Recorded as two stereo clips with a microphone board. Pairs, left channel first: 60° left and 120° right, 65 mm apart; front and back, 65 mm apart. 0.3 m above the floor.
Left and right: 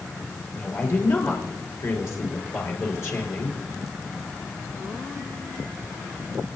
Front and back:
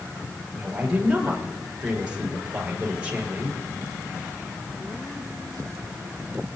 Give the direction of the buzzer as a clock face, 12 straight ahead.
No buzzer in this recording.